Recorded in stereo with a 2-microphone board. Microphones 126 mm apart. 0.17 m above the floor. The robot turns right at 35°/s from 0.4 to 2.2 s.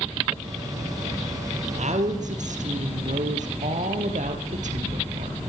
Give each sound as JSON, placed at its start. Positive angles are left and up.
{"t": 1.7, "sound": "a woman speaking", "side_deg": -65, "distance_m": 4.0}